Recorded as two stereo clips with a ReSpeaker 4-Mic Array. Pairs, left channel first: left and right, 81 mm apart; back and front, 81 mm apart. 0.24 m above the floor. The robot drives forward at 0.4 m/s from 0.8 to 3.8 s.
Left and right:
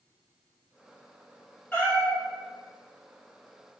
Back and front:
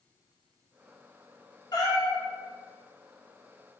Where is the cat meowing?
160° left, 0.9 m; by 2.2 s 165° left, 1.1 m.